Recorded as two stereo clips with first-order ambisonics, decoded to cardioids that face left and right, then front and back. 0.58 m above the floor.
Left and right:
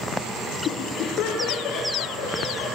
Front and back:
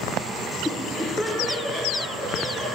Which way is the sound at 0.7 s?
85° left.